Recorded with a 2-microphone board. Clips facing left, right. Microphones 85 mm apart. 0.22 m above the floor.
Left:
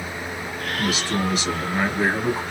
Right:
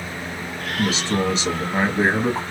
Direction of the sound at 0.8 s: 25° right (ahead or behind).